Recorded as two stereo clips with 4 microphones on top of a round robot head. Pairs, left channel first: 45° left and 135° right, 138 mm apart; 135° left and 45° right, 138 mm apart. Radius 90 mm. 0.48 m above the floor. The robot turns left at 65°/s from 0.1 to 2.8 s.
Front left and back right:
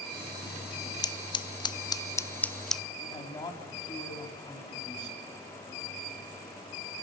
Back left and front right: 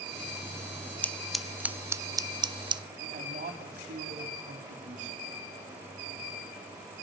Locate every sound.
1.0 s scissors: 70° left, 0.6 m; by 2.8 s 45° right, 0.6 m
3.0 s a man speaking: 15° right, 4 m